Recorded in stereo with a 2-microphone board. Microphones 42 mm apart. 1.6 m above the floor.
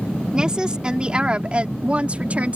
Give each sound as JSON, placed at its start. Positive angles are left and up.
{"t": 0.3, "sound": "a woman speaking", "side_deg": -20}